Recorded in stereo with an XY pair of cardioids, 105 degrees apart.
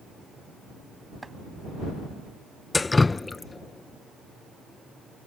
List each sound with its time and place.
1.2 s chopping: 15° right
2.7 s dripping: 20° left